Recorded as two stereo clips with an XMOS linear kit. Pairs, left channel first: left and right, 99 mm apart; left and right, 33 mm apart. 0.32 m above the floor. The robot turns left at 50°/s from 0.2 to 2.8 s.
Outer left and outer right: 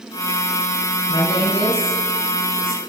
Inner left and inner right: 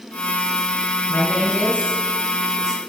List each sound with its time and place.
1.1 s a woman speaking: 60° left, 4.5 m; by 2.8 s 25° right, 4.5 m